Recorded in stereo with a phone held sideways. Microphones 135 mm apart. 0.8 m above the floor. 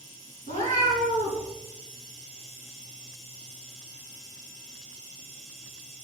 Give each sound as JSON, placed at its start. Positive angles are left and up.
{"t": 0.5, "sound": "a cat meowing", "side_deg": 70, "distance_m": 3.5}